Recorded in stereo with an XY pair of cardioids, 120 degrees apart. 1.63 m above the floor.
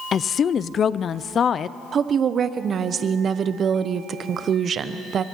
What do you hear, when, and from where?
0.1 s a woman speaking: 45° left, 0.6 m
1.9 s a woman speaking: 40° right, 1.1 m